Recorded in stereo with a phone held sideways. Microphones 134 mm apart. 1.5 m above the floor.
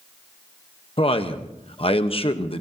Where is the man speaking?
45° left (ahead or behind), 1.1 m.